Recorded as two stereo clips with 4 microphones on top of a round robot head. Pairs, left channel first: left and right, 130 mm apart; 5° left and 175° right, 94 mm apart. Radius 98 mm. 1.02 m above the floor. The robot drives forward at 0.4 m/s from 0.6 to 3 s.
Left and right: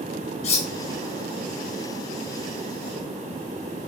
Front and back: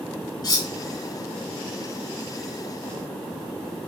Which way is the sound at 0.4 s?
55° left.